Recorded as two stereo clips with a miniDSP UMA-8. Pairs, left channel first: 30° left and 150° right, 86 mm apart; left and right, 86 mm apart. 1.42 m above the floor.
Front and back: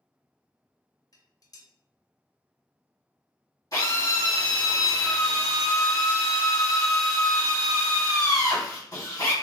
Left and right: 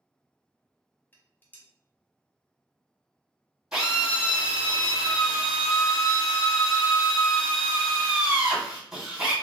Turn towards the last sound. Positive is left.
turn(degrees=-5)